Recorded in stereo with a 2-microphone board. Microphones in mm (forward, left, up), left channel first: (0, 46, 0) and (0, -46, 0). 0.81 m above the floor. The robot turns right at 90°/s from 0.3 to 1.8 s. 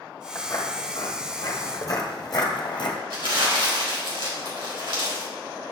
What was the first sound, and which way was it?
Footsteps, 25° left (ahead or behind).